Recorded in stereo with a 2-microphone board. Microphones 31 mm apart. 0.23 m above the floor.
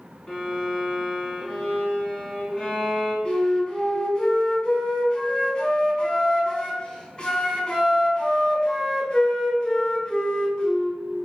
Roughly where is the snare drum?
No snare drum in this recording.